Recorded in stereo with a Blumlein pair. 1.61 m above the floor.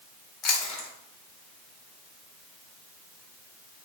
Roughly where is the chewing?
Ahead left.